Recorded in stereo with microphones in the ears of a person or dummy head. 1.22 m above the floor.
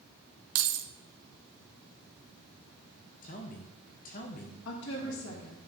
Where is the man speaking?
40° left (ahead or behind), 0.9 m.